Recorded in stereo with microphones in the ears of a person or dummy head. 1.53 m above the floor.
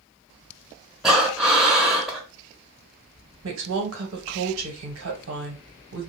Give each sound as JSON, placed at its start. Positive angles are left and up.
{"t": 1.0, "sound": "breathing", "side_deg": -5, "distance_m": 0.8}
{"t": 3.4, "sound": "a woman speaking", "side_deg": -75, "distance_m": 1.1}